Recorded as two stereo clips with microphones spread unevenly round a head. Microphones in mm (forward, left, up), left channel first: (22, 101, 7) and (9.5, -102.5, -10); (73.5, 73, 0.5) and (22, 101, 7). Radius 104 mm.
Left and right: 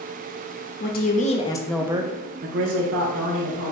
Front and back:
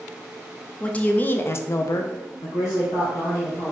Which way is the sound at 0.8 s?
40° left.